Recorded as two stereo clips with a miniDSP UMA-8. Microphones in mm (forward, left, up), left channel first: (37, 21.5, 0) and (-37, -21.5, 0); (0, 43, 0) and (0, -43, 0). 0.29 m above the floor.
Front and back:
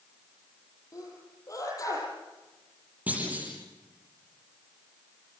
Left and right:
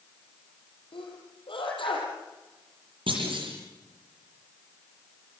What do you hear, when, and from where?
0.9 s a sneeze: 80° left, 8 m
3.1 s a clunk: 75° right, 9.5 m